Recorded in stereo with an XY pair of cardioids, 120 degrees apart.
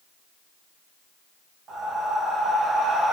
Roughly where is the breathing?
Ahead right.